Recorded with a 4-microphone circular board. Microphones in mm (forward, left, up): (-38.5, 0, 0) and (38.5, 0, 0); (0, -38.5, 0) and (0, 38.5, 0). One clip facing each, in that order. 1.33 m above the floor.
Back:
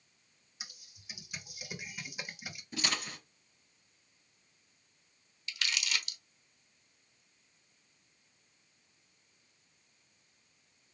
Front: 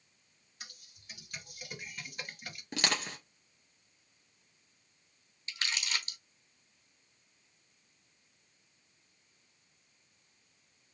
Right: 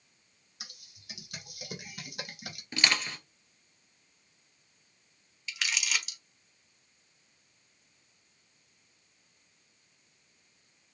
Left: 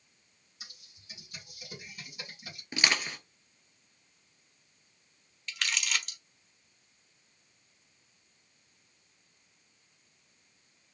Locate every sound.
0.6 s typing on a keyboard: 95° right, 1.1 m
2.7 s crushing: 15° left, 1.8 m
5.5 s crumpling: 5° right, 1.1 m